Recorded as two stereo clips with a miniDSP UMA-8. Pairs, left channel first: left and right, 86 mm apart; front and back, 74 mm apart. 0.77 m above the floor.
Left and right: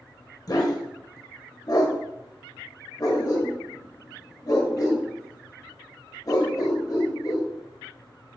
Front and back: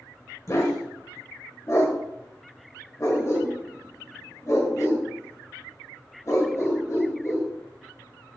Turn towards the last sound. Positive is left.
turn(degrees=45)